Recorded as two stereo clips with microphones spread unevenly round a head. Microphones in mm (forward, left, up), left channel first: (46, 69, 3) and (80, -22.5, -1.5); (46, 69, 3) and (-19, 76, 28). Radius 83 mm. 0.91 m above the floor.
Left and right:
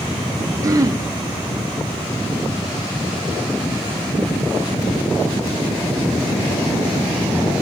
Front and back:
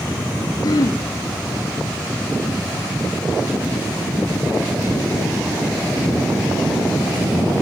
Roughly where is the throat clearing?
Ahead.